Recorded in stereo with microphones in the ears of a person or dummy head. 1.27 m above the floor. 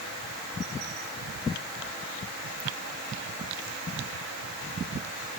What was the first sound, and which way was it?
Only background noise.